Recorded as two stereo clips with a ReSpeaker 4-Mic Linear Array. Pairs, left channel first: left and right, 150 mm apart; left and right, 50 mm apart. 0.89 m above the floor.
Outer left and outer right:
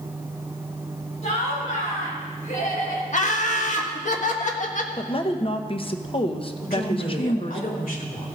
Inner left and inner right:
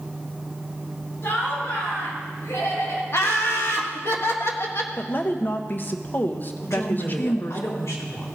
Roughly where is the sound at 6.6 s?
Left.